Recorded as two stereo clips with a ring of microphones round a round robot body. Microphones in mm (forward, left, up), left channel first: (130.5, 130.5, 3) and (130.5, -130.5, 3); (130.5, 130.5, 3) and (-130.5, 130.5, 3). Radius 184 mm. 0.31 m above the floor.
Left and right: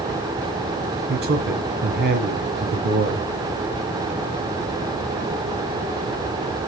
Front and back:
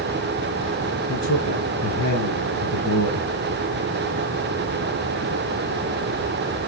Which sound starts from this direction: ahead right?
A man speaking, at 1.1 s.